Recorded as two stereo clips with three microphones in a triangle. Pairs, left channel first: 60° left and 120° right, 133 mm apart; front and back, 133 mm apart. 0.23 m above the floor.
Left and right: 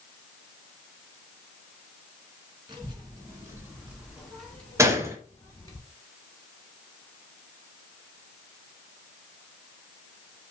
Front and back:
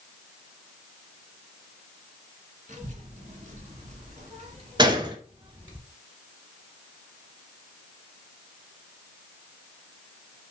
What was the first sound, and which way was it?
A child speaking, 170° right.